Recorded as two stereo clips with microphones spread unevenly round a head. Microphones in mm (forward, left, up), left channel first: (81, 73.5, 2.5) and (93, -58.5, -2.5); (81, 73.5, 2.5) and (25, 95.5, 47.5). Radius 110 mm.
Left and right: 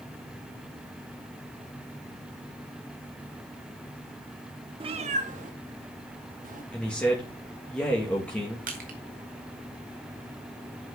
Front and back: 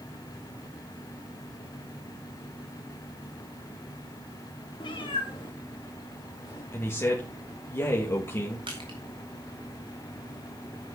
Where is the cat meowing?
80° right, 0.8 m; by 6.6 s 75° right, 3 m.